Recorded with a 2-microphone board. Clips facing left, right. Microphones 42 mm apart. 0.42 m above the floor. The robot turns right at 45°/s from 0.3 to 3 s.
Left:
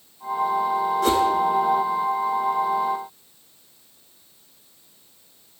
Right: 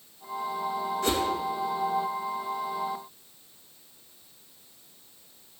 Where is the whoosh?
65° left (ahead or behind), 3.5 m; by 1.2 s 55° left (ahead or behind), 3.5 m.